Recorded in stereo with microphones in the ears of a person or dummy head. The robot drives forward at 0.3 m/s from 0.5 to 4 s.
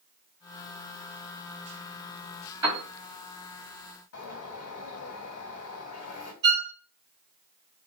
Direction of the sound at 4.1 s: 70° left (ahead or behind).